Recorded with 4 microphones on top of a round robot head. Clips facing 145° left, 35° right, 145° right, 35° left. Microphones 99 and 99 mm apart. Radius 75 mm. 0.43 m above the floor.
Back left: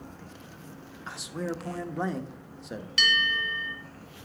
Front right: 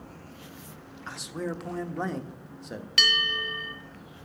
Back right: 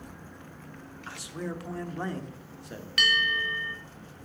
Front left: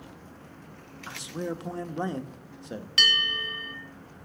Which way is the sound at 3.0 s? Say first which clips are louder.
Back left 2 dB, back right 3 dB; 20° right.